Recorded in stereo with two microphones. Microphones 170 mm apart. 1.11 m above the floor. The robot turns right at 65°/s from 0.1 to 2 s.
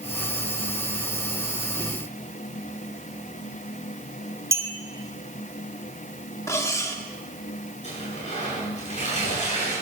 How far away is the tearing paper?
About 8 m.